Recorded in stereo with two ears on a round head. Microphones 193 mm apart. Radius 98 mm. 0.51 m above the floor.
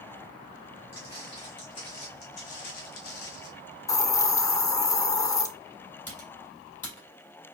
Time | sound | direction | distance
0.9 | footsteps | 15° left (ahead or behind) | 1.9 m
3.9 | a hiss | 15° left (ahead or behind) | 0.5 m
6.1 | typing on a keyboard | 10° left (ahead or behind) | 2.5 m